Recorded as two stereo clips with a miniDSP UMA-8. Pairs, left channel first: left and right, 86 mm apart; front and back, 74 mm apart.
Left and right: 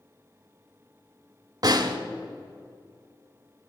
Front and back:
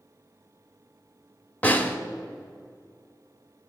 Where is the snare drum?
65° right, 0.7 m.